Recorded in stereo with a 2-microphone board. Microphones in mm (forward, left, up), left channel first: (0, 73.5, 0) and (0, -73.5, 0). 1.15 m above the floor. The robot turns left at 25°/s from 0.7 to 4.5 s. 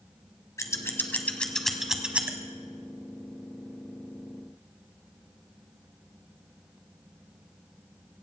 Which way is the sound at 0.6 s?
20° left (ahead or behind).